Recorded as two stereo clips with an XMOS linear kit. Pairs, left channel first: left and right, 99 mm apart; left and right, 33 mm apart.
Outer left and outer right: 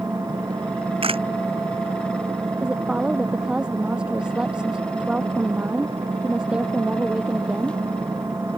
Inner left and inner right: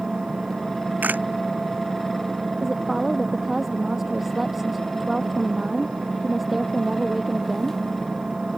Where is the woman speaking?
10° right (ahead or behind).